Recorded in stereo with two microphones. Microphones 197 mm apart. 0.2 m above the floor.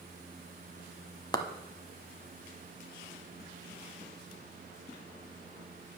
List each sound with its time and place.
1.3 s a clap: 20° left (ahead or behind), 0.9 m